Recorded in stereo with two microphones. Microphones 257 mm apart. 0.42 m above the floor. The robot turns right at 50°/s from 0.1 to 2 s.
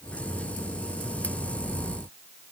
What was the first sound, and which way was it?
Only background noise.